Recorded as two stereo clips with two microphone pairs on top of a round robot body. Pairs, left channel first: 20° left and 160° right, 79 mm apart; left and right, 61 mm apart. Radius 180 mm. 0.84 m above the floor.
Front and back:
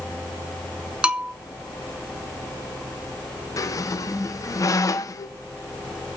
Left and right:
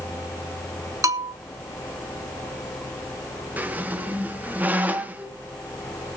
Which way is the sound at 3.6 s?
25° right.